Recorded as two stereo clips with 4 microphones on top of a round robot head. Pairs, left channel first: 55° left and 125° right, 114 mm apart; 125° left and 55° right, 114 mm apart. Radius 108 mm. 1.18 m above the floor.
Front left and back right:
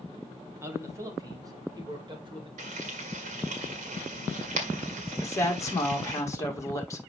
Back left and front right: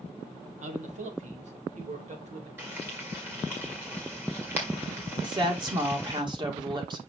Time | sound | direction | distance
0.6 | a man speaking | 55° right | 1.9 m
2.6 | frying | 130° right | 1.7 m
5.2 | a woman speaking | 5° right | 2 m